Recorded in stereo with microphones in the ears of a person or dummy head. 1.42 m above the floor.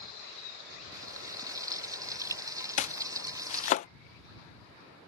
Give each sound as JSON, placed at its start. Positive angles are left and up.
{"t": 0.9, "sound": "frying", "side_deg": -15}
{"t": 2.8, "sound": "chopping", "side_deg": 45}